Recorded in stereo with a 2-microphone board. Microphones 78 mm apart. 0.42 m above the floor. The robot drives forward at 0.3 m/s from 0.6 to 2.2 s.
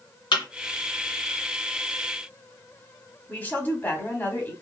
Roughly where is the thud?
Left.